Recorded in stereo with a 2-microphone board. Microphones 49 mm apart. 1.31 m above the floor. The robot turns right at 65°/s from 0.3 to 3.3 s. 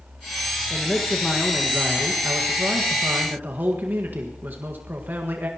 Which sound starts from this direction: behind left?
A man speaking, at 0.7 s.